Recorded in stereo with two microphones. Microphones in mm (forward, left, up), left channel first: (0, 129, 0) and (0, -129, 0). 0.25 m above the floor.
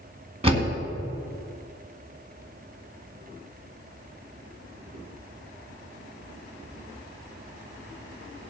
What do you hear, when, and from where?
0.4 s a door slam: 25° right (ahead or behind), 2 m